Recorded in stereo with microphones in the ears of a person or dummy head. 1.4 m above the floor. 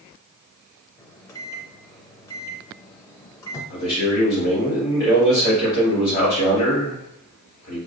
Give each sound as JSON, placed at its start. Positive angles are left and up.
{"t": 1.0, "sound": "a microwave", "side_deg": 15, "distance_m": 0.5}
{"t": 3.7, "sound": "a man speaking", "side_deg": 45, "distance_m": 2.0}